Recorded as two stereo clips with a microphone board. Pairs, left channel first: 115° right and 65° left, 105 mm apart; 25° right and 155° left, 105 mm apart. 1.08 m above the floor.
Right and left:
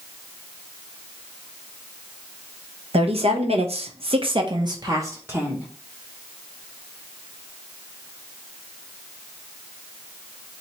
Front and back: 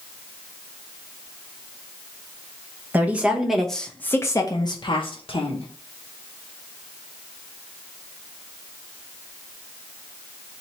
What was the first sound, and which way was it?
A woman speaking, 85° left.